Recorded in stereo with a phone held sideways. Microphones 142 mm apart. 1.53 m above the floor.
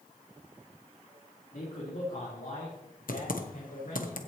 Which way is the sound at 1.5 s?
75° left (ahead or behind).